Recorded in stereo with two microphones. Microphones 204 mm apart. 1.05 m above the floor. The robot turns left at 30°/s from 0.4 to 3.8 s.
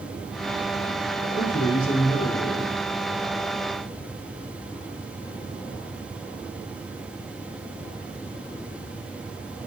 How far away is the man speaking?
About 4 m.